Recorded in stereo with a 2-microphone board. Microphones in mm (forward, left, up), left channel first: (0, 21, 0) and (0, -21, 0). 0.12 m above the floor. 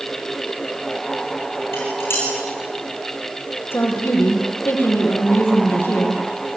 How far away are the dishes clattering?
About 6.5 m.